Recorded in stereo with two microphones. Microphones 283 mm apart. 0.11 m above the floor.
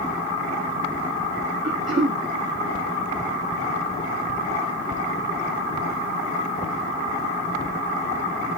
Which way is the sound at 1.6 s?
45° right (ahead or behind).